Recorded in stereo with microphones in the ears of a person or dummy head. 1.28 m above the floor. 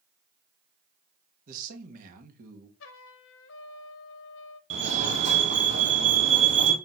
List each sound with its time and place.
1.5 s a man speaking: 50° right (ahead or behind), 1.6 m
2.8 s a trumpet: 65° left (ahead or behind), 0.9 m
4.7 s a fire alarm: 35° right (ahead or behind), 1.6 m